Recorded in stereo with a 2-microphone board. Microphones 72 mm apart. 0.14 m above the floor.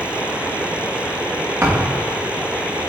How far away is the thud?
About 2.5 m.